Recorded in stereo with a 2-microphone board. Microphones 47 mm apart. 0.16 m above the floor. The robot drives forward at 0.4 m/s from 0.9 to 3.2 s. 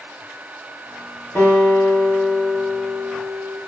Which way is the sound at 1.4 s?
55° left (ahead or behind).